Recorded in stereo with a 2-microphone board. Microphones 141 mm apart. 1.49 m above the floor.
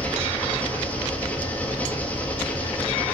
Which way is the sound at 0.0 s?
10° left (ahead or behind).